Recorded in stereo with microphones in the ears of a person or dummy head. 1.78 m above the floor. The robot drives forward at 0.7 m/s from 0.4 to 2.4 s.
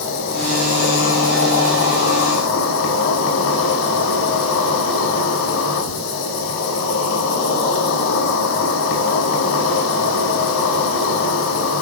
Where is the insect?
80° left, 7 m; by 11.8 s 90° left, 7 m.